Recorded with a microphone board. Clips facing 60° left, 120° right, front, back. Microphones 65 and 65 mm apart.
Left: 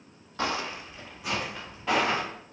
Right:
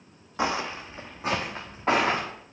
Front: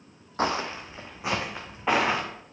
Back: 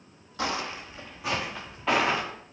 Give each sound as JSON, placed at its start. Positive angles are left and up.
{"t": 0.4, "sound": "footsteps", "azimuth_deg": -50, "distance_m": 0.5}